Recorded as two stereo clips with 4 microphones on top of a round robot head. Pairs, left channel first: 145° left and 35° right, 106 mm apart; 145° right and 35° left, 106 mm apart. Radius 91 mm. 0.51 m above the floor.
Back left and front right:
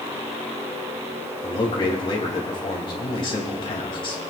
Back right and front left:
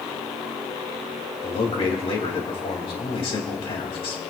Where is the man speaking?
175° right, 3 m.